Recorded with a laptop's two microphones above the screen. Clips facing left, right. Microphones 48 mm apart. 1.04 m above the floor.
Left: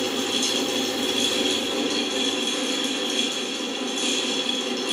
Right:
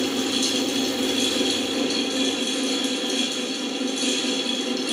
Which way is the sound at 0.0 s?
40° left (ahead or behind).